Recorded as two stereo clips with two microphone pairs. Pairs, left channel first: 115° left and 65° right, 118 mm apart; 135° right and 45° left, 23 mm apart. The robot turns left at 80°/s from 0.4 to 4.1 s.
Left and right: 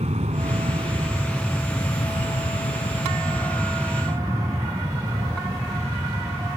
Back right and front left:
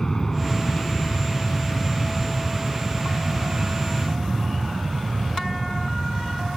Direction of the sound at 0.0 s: 70° right.